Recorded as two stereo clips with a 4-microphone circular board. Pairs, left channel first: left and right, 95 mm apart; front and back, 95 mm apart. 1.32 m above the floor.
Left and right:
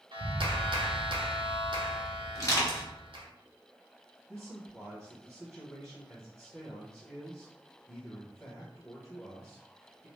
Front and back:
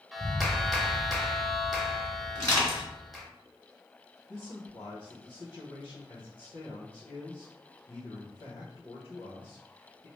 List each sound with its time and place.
0.1 s a clap: 90° right, 0.7 m
2.4 s crushing: 50° left, 1.9 m
4.3 s a man speaking: 10° left, 1.0 m